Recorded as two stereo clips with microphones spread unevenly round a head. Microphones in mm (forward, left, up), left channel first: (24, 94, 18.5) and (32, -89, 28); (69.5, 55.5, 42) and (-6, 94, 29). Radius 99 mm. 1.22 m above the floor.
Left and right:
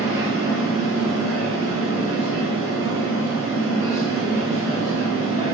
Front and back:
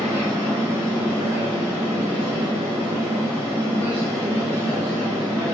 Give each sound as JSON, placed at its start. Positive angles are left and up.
{"t": 0.0, "sound": "a machine running", "azimuth_deg": -150, "distance_m": 1.1}